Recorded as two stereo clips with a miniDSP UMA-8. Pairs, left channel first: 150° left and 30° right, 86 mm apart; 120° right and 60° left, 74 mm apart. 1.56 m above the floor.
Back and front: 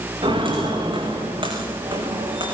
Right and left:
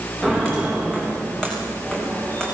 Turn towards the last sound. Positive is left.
turn(degrees=-45)